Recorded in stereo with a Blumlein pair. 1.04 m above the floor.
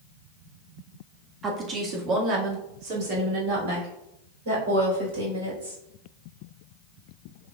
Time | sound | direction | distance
1.4 | a woman speaking | 20° right | 1.7 m